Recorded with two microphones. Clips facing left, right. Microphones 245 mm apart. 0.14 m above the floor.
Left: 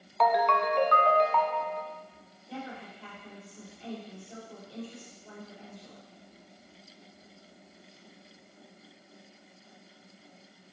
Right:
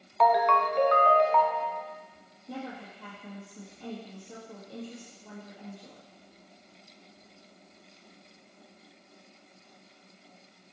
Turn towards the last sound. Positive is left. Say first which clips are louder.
# right 2 dB
turn(degrees=-55)  # may be behind; listen again after turning